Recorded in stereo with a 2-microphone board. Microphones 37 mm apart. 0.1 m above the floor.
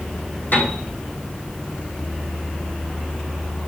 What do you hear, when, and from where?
0.5 s a piano: 65° left (ahead or behind), 3.5 m